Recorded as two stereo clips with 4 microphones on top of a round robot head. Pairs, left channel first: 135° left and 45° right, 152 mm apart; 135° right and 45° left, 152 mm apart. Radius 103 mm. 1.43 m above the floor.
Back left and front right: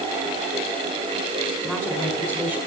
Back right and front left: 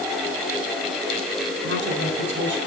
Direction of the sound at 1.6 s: 35° left.